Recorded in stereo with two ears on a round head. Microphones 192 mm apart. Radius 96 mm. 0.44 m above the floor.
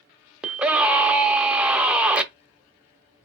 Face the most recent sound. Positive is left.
turn(degrees=-5)  # may be behind; listen again after turning